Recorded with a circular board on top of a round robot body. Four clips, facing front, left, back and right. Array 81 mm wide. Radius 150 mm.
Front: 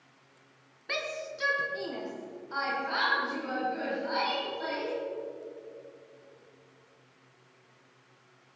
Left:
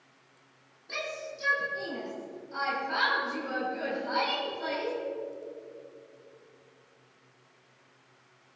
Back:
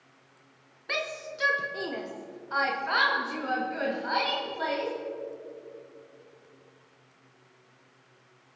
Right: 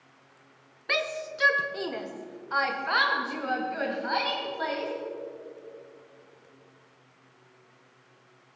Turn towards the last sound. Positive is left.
turn(degrees=-125)